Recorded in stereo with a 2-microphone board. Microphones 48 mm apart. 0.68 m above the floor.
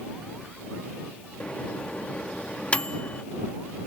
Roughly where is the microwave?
Left.